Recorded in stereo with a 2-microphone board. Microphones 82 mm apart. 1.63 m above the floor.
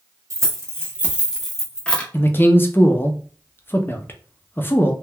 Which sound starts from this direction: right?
Keys jangling, at 0.3 s.